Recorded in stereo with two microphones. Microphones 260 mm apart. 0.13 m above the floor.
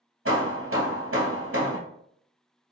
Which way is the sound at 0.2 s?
55° right (ahead or behind).